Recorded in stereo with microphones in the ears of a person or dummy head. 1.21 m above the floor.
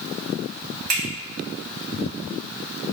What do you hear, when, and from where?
0.9 s a finger snap: 50° right (ahead or behind), 1.9 m